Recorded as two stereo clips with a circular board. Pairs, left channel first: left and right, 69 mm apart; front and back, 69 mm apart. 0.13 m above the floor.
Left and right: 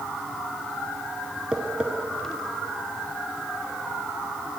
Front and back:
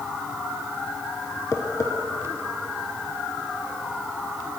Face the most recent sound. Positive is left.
turn(degrees=-20)